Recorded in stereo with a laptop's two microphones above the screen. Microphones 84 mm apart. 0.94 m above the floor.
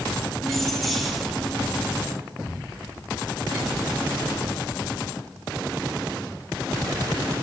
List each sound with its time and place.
0.4 s keys jangling: 5° left (ahead or behind), 0.8 m